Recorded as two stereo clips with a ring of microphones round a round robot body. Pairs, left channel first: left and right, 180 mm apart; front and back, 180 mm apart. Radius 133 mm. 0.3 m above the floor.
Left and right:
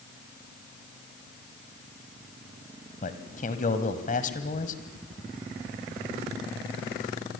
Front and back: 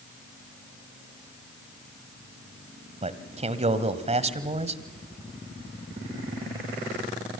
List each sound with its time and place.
3.0 s a man speaking: 135° left, 1.7 m